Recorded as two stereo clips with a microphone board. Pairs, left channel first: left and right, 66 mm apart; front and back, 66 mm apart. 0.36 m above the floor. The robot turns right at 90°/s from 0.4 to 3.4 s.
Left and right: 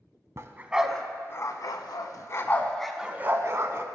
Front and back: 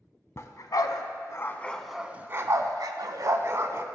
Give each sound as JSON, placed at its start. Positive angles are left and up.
{"t": 0.4, "sound": "a dog barking", "azimuth_deg": -45, "distance_m": 0.5}